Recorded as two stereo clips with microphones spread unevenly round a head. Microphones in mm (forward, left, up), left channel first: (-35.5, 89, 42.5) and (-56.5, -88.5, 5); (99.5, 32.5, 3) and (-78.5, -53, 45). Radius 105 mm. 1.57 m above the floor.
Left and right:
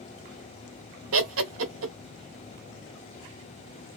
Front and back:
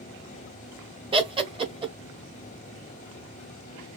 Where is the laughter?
90° right, 0.9 m.